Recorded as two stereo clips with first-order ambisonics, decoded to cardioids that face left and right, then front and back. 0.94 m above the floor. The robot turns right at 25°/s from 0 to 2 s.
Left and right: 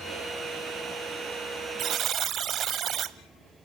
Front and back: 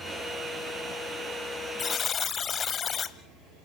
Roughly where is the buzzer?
Ahead right.